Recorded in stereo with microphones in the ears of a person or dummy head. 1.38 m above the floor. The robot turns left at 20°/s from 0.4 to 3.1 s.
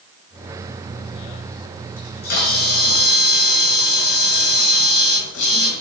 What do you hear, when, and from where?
2.0 s a camera shutter: 40° left (ahead or behind), 1.2 m; by 5.8 s 65° left (ahead or behind), 1.2 m